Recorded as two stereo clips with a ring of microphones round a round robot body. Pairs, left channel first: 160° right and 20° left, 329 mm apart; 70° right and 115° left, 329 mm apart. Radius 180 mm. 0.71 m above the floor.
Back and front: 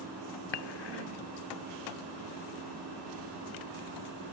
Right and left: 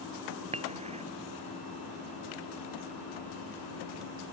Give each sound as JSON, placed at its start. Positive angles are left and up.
{"t": 0.5, "sound": "dishes clattering", "azimuth_deg": -175}